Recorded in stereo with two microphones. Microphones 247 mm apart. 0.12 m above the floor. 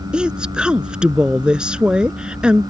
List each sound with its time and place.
0.1 s a woman speaking: 5° right (ahead or behind)